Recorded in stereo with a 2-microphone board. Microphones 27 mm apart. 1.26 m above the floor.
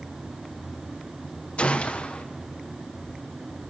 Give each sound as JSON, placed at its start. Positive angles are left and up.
{"t": 1.6, "sound": "a gunshot", "side_deg": 50, "distance_m": 0.9}